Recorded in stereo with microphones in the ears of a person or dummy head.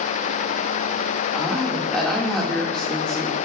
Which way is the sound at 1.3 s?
Centre (ahead or behind).